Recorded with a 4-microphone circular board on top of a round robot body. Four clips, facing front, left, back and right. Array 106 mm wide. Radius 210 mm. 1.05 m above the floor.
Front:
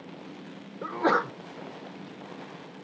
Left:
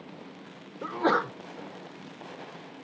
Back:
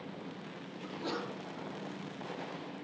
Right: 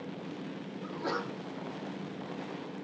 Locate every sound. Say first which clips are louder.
0.8 s a sneeze: left 10 dB, front 14 dB; 40° left, 0.6 m